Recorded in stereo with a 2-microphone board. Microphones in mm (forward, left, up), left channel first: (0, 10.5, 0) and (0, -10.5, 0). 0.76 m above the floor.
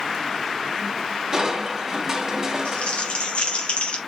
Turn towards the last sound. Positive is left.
turn(degrees=70)  # may be behind; listen again after turning